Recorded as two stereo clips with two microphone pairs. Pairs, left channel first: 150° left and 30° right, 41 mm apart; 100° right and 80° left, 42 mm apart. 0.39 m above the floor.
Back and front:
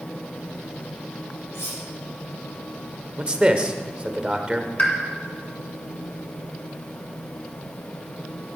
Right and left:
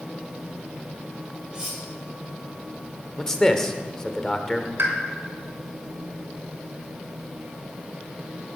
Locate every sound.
1.5 s cutlery clinking: 150° left, 7 m
3.2 s a man speaking: 45° right, 1.1 m
4.8 s a pop: 95° left, 3 m